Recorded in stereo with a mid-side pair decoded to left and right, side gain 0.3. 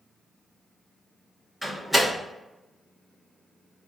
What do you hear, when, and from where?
1.6 s a door slam: 10° right, 1.5 m